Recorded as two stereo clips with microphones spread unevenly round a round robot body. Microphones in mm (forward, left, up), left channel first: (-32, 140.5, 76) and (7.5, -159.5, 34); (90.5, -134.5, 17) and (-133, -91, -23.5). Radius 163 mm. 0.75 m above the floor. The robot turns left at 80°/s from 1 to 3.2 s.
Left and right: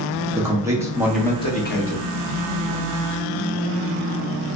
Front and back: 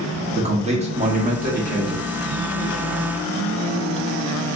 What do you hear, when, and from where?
0.3 s a man speaking: 150° right, 1.1 m; by 2.0 s 125° left, 1.1 m